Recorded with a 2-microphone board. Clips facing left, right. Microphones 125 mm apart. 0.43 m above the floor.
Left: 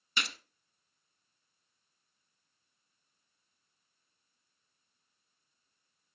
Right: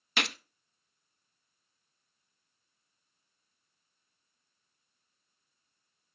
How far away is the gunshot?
About 0.6 m.